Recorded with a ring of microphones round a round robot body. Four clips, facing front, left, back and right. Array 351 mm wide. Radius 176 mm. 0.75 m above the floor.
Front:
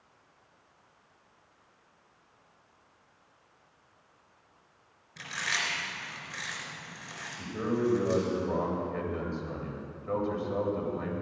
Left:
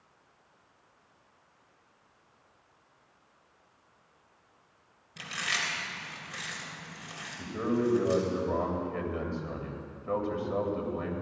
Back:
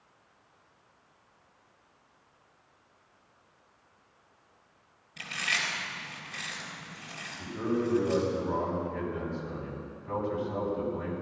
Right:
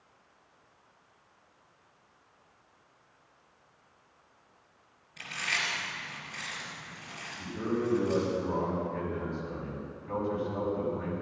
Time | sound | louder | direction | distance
5.2 | chewing | even, even | 75° left | 3.5 m
7.4 | a man speaking | left 2 dB, even | 65° left | 3.5 m